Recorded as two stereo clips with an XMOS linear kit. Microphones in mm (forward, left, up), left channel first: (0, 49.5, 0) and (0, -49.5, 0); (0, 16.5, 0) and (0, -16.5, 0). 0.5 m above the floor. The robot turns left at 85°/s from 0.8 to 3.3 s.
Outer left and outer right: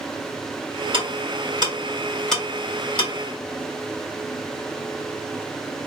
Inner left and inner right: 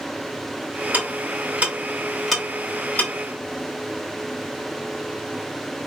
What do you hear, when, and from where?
0.9 s ticking: 55° right (ahead or behind), 2.5 m; by 3.1 s 60° left (ahead or behind), 2.5 m